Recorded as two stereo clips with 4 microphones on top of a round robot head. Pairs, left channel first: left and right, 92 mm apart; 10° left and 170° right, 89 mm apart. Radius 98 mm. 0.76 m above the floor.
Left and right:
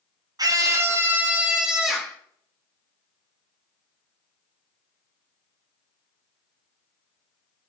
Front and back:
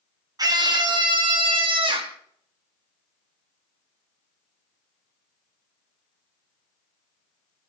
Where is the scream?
130° right, 1.7 m; by 2.2 s straight behind, 2.5 m.